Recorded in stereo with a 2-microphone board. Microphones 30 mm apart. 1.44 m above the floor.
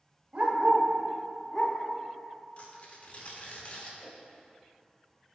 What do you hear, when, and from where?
0.3 s a dog barking: 35° right (ahead or behind), 1.6 m; by 1.8 s 35° left (ahead or behind), 1.3 m
2.6 s tearing paper: 45° left (ahead or behind), 1.3 m
4.0 s a whoosh: 5° left (ahead or behind), 1.7 m